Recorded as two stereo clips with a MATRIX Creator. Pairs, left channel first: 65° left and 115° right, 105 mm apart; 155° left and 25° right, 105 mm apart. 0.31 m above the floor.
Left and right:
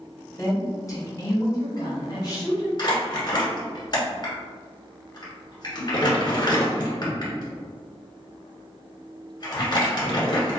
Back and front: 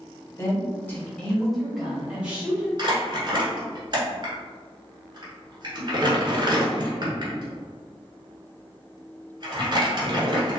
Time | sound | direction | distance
0.4 | a woman speaking | 115° left | 1.4 m
2.8 | crumpling | 25° left | 1.2 m